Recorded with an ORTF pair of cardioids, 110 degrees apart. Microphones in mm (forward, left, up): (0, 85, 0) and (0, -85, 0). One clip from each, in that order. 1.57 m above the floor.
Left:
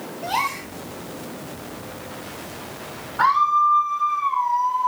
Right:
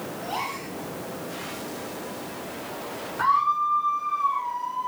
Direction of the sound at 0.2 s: 65° left.